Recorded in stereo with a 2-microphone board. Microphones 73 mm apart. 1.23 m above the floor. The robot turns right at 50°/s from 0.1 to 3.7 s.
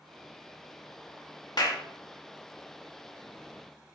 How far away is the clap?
About 1.5 m.